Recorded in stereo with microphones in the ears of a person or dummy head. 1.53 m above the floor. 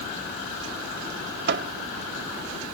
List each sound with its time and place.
1.5 s a microwave: 45° right (ahead or behind)